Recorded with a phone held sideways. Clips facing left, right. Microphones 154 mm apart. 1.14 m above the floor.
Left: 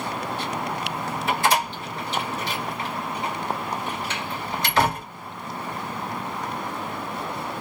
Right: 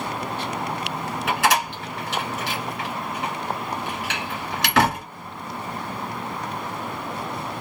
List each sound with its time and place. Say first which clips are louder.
1.3 s a door slam: right 1 dB; 85° right, 2.5 m